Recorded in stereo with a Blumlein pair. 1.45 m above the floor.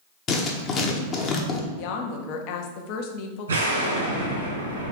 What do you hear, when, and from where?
0.3 s writing: 25° left, 0.9 m
1.8 s a woman speaking: 45° left, 0.8 m
3.5 s an explosion: 70° right, 1.9 m